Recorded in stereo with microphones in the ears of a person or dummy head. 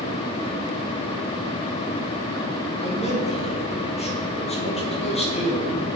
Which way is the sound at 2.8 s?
30° left (ahead or behind).